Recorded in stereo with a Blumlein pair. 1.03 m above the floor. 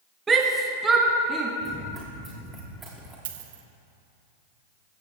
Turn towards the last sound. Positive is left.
turn(degrees=-55)